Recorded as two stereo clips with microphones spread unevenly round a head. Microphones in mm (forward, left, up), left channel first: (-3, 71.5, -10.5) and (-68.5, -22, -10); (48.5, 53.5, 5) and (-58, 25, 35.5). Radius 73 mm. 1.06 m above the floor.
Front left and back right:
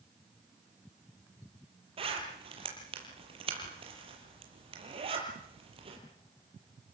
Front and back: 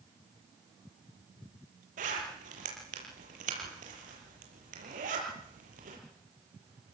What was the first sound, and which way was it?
A zipper, 165° right.